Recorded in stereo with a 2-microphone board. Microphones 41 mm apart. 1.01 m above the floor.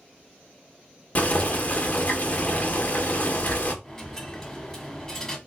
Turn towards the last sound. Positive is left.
turn(degrees=15)  # may be behind; listen again after turning